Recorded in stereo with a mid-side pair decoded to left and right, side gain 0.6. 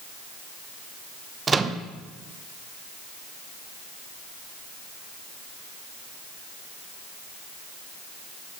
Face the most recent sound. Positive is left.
turn(degrees=-25)